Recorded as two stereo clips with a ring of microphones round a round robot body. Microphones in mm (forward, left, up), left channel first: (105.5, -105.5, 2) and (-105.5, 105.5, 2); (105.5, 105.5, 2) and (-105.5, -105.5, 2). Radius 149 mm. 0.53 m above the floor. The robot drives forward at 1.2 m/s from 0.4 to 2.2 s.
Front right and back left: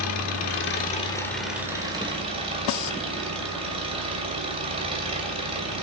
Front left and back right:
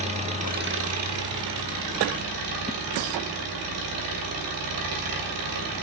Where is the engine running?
70° right, 1.2 m; by 5.8 s 155° right, 2 m.